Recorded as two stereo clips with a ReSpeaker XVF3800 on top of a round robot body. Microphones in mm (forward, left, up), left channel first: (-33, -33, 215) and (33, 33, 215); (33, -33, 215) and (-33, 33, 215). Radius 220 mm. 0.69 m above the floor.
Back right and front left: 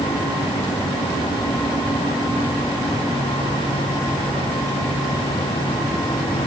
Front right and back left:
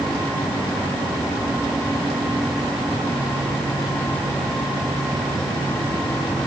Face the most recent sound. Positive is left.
No sound to turn to.